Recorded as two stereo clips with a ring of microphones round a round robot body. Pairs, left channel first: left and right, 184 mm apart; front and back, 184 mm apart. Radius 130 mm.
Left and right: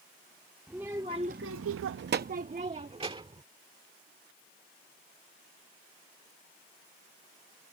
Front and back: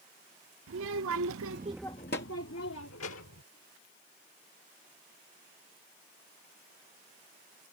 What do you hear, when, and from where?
0.7 s a child speaking: 175° right; by 3.4 s 25° right